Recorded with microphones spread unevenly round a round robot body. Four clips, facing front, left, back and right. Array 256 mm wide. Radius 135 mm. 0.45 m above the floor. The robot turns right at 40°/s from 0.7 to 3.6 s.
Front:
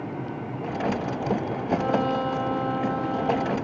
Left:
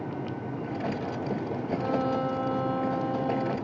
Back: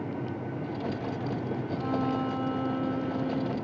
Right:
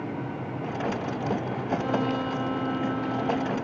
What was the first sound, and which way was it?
A violin, straight ahead.